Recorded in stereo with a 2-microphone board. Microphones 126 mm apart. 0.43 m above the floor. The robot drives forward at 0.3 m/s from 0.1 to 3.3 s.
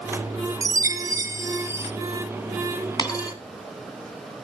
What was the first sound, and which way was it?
A chime, 25° right (ahead or behind).